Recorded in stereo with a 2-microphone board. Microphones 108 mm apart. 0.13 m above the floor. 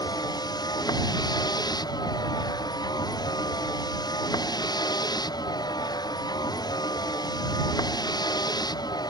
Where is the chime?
I don't hear a chime.